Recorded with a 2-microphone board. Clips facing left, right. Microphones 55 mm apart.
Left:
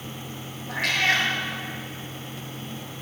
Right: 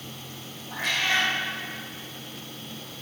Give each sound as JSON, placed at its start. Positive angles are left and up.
{"t": 0.7, "sound": "a cat meowing", "side_deg": 70, "distance_m": 1.6}